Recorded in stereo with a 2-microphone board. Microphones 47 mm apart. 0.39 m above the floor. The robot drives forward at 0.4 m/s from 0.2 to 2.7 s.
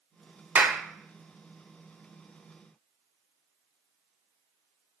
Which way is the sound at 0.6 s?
35° right (ahead or behind).